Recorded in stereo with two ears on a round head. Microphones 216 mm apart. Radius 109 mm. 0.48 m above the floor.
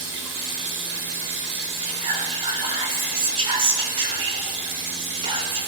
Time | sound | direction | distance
0.0 | running water | 60° right (ahead or behind) | 2.5 m
1.8 | whispering | 25° right (ahead or behind) | 1.7 m